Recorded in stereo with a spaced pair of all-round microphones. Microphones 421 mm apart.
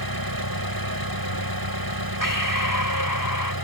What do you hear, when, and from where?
0.0 s an engine running: 60° right (ahead or behind)
2.2 s breathing: 50° left (ahead or behind)